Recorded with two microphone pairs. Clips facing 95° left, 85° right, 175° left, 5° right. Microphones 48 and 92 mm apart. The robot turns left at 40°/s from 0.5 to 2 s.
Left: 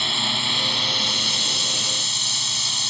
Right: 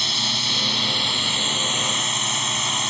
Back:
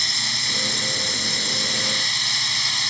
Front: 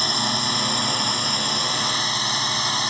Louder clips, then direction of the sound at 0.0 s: Left 1 dB, front 8 dB; 20° left.